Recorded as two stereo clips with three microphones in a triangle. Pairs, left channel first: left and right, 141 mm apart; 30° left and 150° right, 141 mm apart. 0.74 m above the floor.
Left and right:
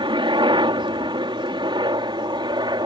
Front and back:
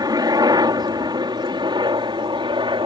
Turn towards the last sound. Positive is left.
turn(degrees=-125)